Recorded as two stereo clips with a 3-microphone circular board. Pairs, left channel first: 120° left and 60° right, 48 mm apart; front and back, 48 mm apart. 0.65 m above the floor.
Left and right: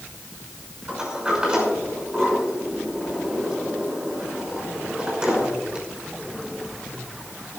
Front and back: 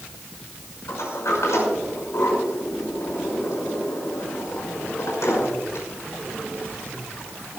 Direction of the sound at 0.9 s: 10° left.